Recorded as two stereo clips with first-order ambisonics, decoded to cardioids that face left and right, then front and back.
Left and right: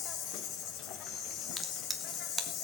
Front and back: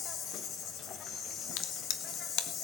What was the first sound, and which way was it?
An insect, 50° left.